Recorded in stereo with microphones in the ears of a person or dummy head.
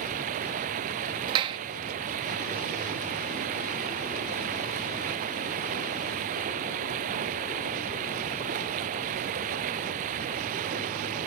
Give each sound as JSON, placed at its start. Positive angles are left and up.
{"t": 0.0, "sound": "running water", "side_deg": -45}
{"t": 1.3, "sound": "a clap", "side_deg": -30}